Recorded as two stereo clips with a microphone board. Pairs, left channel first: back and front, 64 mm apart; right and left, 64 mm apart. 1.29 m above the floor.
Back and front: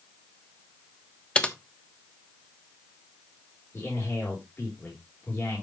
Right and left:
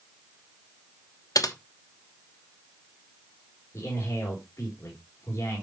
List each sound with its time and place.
1.4 s typing on a keyboard: 105° right, 1.1 m
3.7 s a man speaking: 130° right, 4 m